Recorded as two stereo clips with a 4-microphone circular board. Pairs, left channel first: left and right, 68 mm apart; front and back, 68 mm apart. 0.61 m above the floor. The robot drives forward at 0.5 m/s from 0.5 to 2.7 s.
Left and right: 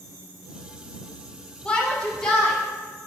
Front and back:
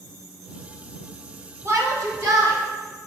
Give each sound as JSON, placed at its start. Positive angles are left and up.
{"t": 1.6, "sound": "a shout", "azimuth_deg": 155, "distance_m": 0.7}